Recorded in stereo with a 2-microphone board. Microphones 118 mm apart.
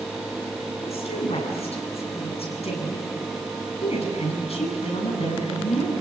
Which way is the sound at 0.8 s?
60° left (ahead or behind).